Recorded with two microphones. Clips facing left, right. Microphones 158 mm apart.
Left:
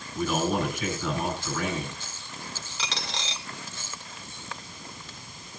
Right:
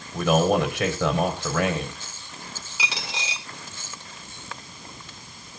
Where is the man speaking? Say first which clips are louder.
Right 6 dB; 80° right, 4.5 m.